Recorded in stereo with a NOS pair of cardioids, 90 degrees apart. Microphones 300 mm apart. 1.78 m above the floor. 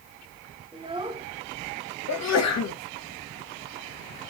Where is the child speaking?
15° right, 1.7 m.